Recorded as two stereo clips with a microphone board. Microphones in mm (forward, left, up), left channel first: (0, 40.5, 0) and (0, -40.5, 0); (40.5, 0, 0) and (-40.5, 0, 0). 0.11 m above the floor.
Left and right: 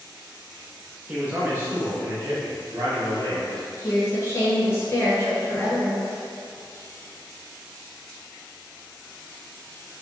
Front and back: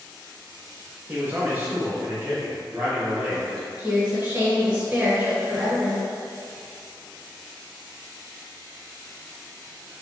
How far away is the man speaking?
About 1.1 m.